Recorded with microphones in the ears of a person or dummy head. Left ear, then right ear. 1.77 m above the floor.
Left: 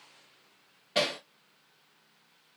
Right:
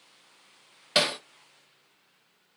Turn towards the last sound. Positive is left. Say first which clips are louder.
# right 4 dB
turn(degrees=-55)  # may be behind; listen again after turning